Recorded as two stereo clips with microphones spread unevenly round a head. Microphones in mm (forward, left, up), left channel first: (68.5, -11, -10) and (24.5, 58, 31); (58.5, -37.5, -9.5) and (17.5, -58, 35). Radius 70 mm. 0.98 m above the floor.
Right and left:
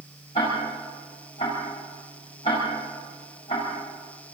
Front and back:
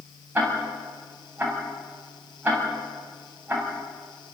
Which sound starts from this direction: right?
Ticking, at 0.3 s.